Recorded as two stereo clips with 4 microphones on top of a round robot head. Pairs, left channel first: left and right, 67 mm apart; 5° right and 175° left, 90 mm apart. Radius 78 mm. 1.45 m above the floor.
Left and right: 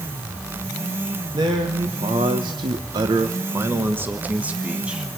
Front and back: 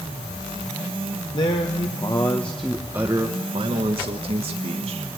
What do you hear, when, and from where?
1.3 s a man speaking: 50° right, 1.6 m; by 5.1 s 170° right, 2 m